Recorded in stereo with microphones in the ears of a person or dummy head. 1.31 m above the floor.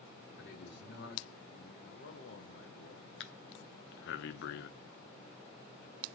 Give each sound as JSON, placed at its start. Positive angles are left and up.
{"t": 0.4, "sound": "a man speaking", "side_deg": 75, "distance_m": 3.0}
{"t": 1.8, "sound": "a man speaking", "side_deg": 65, "distance_m": 1.1}
{"t": 3.2, "sound": "breathing", "side_deg": 70, "distance_m": 0.9}